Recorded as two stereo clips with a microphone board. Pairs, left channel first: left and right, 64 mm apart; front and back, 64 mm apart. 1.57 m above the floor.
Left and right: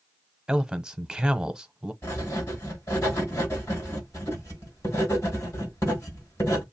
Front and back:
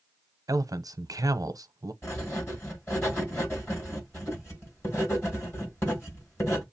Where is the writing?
45° left, 4.5 m.